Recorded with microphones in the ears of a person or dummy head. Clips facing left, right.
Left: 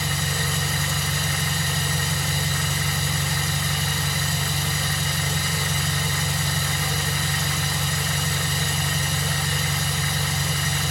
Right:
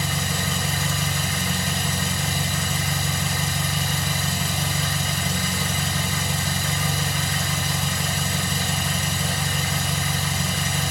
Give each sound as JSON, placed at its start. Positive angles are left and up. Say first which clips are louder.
{"t": 0.0, "sound": "an engine running", "louder": "right 1 dB", "side_deg": -65, "distance_m": 2.5}